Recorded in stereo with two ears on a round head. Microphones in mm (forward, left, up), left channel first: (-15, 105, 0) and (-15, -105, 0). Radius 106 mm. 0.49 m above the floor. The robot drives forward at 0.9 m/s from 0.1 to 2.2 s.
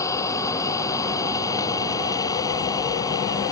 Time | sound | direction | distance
0.0 | an engine running | 15° left (ahead or behind) | ?